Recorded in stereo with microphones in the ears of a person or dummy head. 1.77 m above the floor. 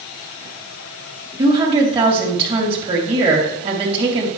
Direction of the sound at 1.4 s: 30° right (ahead or behind).